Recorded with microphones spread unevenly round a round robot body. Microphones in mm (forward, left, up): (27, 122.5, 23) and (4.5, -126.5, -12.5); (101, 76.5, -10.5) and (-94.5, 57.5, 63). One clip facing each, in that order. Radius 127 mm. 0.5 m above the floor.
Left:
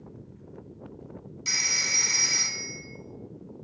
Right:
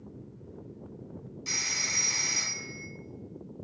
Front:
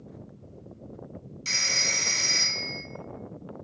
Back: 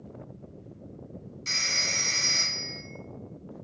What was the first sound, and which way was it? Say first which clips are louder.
A phone ringing: left 1 dB, front 4 dB; 35° left.